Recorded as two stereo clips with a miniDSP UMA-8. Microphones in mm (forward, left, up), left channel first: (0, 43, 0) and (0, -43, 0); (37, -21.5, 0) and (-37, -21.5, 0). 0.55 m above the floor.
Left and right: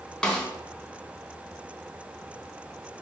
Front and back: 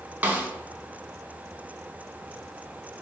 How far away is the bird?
I don't hear a bird.